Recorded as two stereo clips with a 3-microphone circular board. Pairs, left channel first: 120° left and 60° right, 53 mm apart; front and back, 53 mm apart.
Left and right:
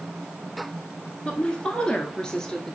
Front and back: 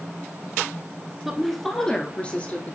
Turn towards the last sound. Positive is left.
turn(degrees=45)